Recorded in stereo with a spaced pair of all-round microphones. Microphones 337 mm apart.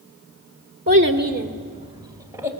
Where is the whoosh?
No whoosh in this recording.